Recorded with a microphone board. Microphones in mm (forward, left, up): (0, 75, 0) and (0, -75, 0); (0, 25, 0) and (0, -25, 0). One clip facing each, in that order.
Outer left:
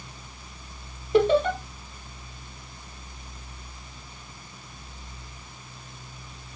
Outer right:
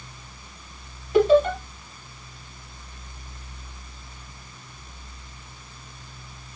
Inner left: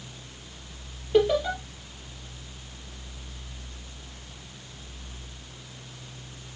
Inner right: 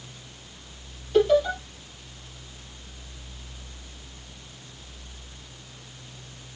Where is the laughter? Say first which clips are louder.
Outer right 3 dB, inner right 2 dB; 25° left (ahead or behind), 4 m.